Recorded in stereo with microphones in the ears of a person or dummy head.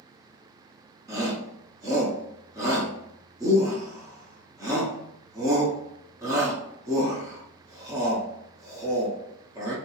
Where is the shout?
15° right (ahead or behind), 0.6 m.